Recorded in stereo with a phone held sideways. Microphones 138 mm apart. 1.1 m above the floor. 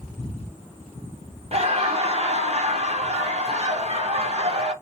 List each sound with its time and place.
1.5 s laughter: 50° right (ahead or behind), 0.8 m